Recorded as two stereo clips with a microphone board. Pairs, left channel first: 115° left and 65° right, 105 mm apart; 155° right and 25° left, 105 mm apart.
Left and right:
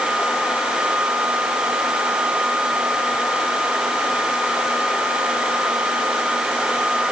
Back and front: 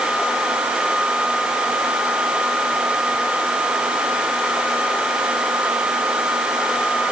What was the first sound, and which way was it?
Only background noise.